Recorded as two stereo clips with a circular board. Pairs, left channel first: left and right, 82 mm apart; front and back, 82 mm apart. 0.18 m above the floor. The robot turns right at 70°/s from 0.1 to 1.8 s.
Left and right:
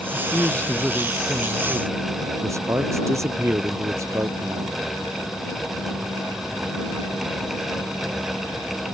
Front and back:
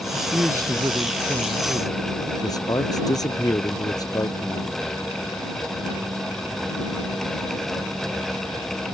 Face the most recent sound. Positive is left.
turn(degrees=-40)